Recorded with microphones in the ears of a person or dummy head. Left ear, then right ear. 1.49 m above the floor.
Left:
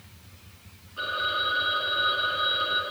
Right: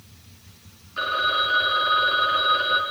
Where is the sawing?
No sawing in this recording.